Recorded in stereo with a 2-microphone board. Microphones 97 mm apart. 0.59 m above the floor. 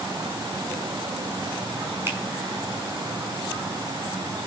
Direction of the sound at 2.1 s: 25° right (ahead or behind).